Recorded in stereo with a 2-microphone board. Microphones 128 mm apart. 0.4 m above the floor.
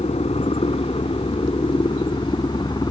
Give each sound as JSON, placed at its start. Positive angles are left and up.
{"t": 0.0, "sound": "a helicopter", "side_deg": 50}